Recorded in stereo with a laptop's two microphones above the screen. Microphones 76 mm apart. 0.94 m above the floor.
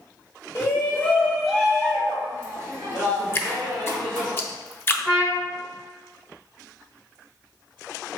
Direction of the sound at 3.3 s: 30° left (ahead or behind).